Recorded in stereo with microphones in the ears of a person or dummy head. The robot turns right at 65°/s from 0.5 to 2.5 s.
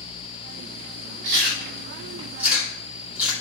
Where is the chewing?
65° right (ahead or behind), 2.5 m; by 3.3 s 5° right (ahead or behind), 2.5 m.